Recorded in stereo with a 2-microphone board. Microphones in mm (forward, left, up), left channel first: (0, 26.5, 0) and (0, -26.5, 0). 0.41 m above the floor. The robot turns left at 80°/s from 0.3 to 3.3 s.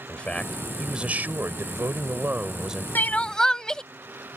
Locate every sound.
0.1 s a man speaking: 30° left; by 2.9 s 175° right
3.0 s crying: 45° left (ahead or behind); by 3.8 s 15° left (ahead or behind)